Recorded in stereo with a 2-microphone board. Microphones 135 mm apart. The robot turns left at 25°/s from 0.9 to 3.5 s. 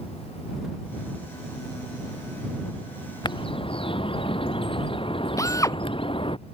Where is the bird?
35° left (ahead or behind); by 6.4 s 40° left (ahead or behind).